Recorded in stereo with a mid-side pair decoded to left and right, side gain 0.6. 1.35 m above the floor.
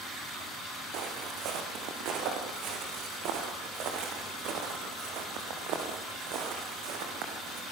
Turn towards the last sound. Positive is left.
turn(degrees=-70)